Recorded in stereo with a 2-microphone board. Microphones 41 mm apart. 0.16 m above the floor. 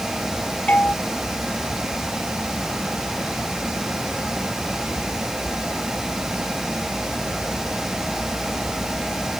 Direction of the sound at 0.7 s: 35° left (ahead or behind).